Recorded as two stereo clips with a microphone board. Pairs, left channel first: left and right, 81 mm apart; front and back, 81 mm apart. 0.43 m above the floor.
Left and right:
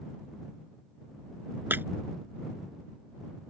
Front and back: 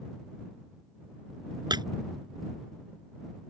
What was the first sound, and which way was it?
Breaking glass, 155° right.